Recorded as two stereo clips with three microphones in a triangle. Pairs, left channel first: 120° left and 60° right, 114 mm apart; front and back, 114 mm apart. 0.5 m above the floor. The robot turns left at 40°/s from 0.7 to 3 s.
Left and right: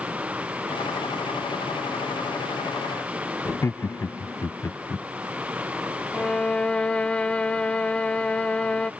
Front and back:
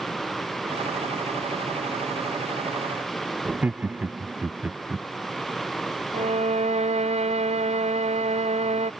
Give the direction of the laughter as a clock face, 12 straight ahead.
8 o'clock.